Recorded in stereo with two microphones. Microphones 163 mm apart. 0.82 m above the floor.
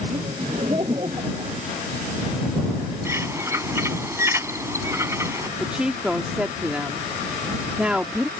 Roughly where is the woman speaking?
Centre.